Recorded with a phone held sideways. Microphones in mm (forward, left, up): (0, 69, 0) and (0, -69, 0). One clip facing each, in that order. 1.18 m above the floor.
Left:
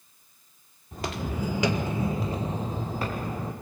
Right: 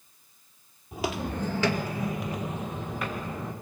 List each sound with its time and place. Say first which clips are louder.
0.9 s footsteps: right 2 dB; 10° right (ahead or behind), 1.5 m; by 3.5 s 35° left (ahead or behind), 3 m